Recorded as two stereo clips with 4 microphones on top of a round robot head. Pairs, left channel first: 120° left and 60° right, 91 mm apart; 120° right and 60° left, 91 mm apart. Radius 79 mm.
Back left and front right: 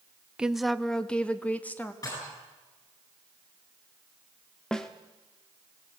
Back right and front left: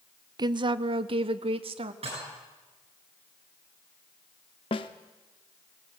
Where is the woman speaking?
20° left, 0.5 m; by 1.9 s 50° left, 1.4 m.